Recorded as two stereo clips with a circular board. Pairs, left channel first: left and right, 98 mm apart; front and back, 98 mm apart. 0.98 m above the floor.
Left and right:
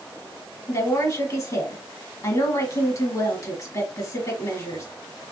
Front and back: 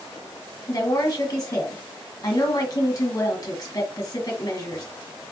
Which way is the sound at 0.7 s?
45° left.